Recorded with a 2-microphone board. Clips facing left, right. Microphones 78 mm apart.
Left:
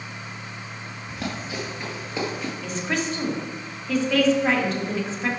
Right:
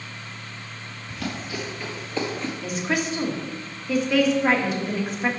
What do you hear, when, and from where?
1.1 s running footsteps: 30° left (ahead or behind), 2.0 m; by 2.5 s 5° left (ahead or behind), 1.6 m
2.6 s a woman speaking: 10° right (ahead or behind), 1.3 m